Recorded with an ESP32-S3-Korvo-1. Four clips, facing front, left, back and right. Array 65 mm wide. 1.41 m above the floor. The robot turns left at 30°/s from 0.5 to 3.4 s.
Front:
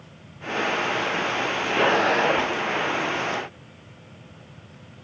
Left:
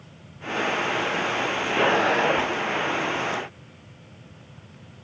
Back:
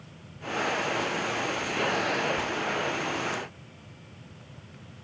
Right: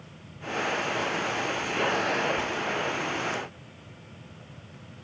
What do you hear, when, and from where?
Only background noise.